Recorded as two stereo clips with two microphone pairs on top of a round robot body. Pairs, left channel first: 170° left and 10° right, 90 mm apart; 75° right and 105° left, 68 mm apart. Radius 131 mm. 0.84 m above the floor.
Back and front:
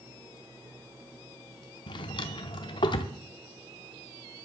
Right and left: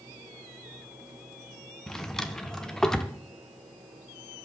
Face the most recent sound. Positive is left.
turn(degrees=-155)